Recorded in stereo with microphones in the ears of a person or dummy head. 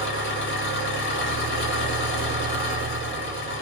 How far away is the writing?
I don't hear writing.